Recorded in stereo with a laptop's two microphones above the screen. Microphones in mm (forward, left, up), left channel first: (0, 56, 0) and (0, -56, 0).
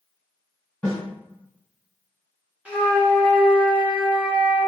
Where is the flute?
10° right (ahead or behind), 0.9 m.